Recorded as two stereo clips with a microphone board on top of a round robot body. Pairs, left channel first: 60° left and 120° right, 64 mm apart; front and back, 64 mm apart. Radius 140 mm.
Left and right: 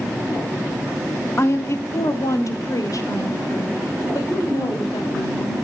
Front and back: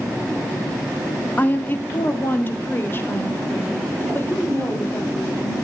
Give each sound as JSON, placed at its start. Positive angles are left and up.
{"t": 1.4, "sound": "a woman speaking", "azimuth_deg": 45, "distance_m": 1.1}